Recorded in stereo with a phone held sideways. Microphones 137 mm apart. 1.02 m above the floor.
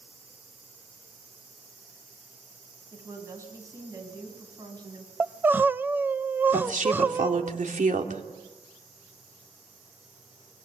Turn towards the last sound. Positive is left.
turn(degrees=-80)